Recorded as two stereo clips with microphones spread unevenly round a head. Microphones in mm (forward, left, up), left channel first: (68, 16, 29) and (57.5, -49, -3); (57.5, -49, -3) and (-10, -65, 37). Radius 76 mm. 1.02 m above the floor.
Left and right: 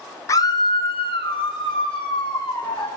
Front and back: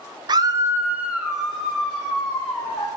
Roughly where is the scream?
Behind left.